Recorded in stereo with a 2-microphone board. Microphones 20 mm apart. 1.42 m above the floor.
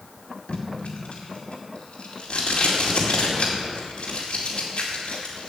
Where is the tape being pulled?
60° left (ahead or behind), 2 m.